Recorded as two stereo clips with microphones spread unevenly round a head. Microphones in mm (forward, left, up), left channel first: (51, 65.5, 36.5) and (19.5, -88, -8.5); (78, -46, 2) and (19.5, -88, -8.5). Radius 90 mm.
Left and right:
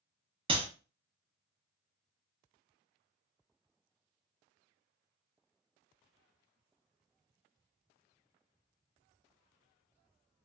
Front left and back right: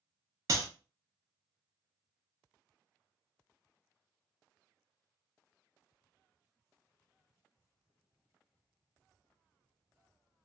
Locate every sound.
0.5 s a clap: 165° right, 0.7 m